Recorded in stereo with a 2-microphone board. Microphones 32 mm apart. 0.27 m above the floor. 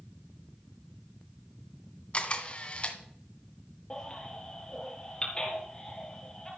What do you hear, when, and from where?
2.1 s a camera shutter: 30° left (ahead or behind), 1.8 m
3.9 s a baby crying: 20° left (ahead or behind), 4.5 m